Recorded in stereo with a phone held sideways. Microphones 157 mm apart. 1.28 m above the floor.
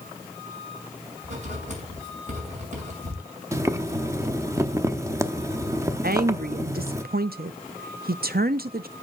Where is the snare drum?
I don't hear a snare drum.